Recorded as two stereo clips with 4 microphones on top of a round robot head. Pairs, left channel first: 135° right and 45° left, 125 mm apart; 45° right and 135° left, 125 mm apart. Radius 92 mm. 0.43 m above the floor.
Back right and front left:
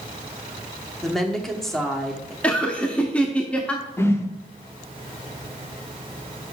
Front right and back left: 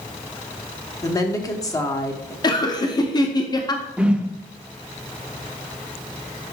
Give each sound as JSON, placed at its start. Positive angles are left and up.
{"t": 1.0, "sound": "a woman speaking", "azimuth_deg": -55, "distance_m": 1.1}
{"t": 2.4, "sound": "laughter", "azimuth_deg": -65, "distance_m": 0.9}
{"t": 4.0, "sound": "a whoosh", "azimuth_deg": -160, "distance_m": 0.8}